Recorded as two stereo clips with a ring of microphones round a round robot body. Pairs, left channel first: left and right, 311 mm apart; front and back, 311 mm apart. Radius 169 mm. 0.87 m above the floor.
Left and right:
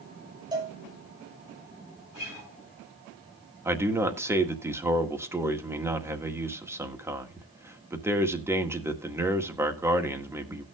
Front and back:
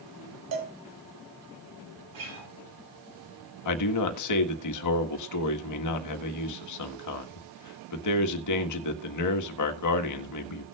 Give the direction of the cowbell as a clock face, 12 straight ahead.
6 o'clock.